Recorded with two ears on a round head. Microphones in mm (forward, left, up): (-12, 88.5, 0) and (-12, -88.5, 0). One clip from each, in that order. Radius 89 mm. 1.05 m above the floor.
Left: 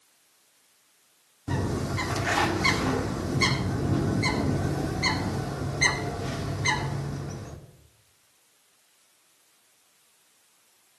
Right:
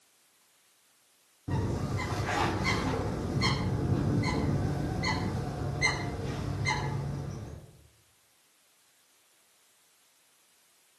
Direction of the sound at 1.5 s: 65° left (ahead or behind).